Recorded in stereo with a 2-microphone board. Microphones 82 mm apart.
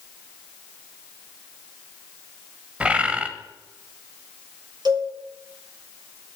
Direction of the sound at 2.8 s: 15° right (ahead or behind).